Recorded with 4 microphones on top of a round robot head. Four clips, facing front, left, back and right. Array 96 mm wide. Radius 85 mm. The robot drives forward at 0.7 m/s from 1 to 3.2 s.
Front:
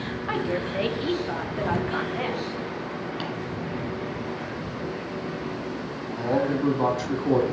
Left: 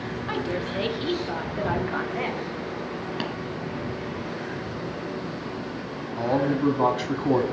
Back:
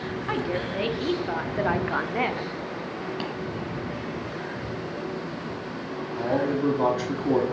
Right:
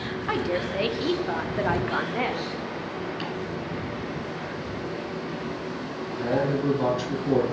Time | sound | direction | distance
0.3 | a woman speaking | 100° right | 1.0 m
3.2 | tapping | 120° left | 1.5 m
6.2 | a man speaking | 115° left | 1.1 m